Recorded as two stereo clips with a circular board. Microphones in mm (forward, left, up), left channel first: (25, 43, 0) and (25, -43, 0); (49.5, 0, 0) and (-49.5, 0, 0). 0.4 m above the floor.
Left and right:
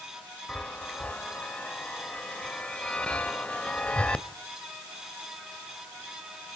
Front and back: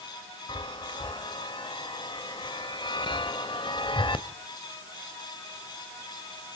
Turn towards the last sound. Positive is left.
turn(degrees=15)